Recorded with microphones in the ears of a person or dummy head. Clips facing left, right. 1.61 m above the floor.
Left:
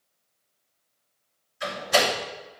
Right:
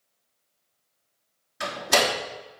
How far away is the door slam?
About 3.5 m.